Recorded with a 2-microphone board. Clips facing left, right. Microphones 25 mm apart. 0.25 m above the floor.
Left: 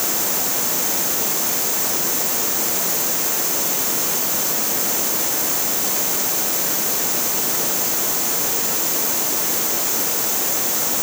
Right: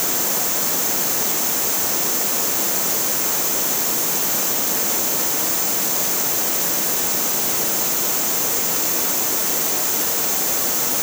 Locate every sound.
Only background noise.